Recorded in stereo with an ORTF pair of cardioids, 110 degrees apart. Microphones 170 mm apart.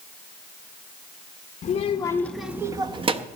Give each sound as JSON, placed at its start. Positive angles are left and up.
{"t": 1.6, "sound": "a child speaking", "azimuth_deg": 45, "distance_m": 0.7}